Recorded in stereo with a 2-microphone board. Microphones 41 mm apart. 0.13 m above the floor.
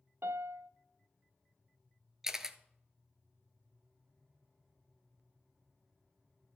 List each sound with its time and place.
0.2 s a piano: 75° right (ahead or behind), 0.5 m
2.2 s a camera shutter: 10° right (ahead or behind), 0.6 m